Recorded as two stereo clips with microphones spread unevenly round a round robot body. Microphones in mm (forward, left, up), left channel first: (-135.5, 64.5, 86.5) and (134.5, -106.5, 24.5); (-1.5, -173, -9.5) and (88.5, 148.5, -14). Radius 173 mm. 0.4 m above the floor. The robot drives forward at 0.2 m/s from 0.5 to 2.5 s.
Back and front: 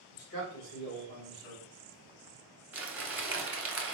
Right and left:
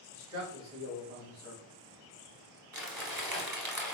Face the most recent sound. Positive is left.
turn(degrees=10)